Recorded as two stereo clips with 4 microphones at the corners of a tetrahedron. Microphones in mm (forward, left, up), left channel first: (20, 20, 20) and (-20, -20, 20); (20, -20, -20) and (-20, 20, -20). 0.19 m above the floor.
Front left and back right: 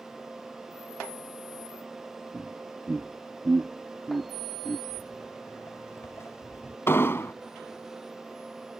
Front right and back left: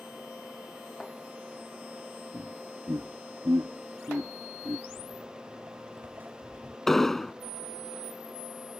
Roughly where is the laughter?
Behind left.